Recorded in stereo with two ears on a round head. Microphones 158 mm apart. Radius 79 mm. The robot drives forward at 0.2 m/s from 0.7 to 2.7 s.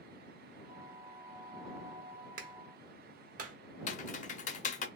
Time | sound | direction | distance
2.4 | a clap | 50° right (ahead or behind) | 1.2 m
3.9 | typing on a keyboard | 45° left (ahead or behind) | 0.8 m